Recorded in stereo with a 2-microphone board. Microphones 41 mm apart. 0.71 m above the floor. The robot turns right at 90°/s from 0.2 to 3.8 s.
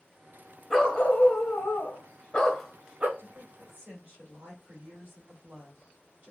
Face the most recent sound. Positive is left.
turn(degrees=-55)